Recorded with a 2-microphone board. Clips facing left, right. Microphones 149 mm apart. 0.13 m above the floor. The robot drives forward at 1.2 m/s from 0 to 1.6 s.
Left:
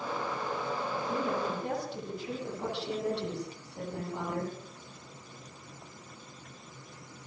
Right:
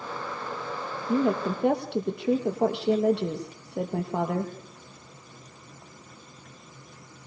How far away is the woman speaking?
About 6 m.